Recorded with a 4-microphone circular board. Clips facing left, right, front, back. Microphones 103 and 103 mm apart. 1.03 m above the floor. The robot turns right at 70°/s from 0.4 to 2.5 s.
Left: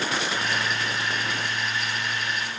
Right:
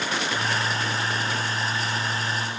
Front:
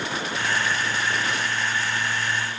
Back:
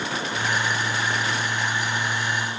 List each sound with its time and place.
Only background noise.